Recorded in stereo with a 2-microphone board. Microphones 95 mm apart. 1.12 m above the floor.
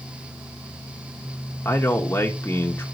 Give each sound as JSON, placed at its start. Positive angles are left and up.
{"t": 1.6, "sound": "a man speaking", "side_deg": 25, "distance_m": 0.8}